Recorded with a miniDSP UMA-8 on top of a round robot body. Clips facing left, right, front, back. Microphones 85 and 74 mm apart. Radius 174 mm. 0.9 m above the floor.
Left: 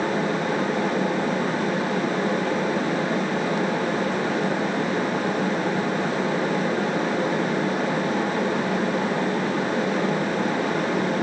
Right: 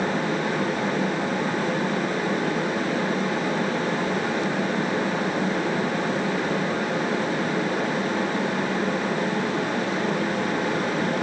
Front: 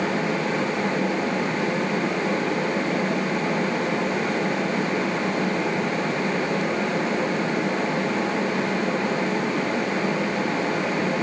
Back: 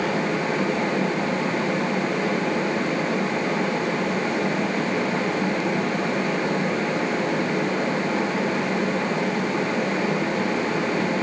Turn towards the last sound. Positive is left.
No sound to turn to.